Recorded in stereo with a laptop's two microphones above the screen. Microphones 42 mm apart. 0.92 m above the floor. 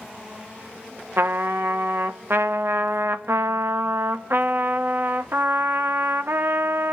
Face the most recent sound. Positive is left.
turn(degrees=-65)  # may be behind; listen again after turning